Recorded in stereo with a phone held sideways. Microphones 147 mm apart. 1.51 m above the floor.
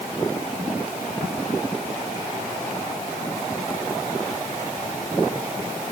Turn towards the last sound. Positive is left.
No sound to turn to.